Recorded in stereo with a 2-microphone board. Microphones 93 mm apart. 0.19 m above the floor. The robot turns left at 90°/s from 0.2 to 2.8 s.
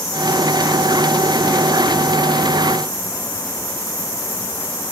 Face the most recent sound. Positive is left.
No sound to turn to.